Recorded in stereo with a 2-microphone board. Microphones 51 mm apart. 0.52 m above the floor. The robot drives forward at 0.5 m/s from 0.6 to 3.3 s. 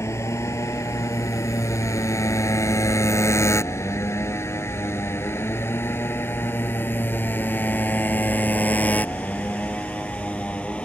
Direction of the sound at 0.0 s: 70° left (ahead or behind).